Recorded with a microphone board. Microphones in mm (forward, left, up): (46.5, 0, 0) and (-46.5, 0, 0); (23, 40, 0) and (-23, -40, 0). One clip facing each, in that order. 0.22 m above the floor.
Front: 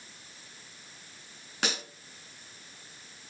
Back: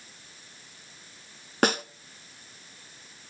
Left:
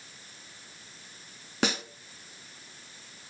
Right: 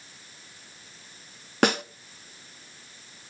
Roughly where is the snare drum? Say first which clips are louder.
Back 10 dB, right 7 dB; behind right.